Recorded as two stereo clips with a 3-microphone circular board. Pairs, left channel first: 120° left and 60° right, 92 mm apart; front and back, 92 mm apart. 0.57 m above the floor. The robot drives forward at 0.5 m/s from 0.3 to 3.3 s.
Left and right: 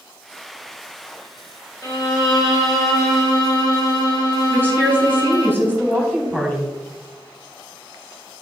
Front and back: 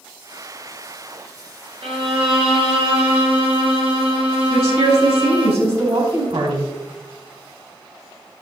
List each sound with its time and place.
1.8 s a violin: 165° left, 2.0 m; by 5.5 s 170° left, 2.5 m
4.5 s a woman speaking: 165° right, 4 m